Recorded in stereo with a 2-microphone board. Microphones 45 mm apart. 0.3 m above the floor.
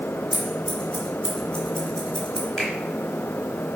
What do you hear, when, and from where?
0.3 s scissors: 15° left (ahead or behind), 2.5 m
2.6 s a finger snap: 15° left (ahead or behind), 3.5 m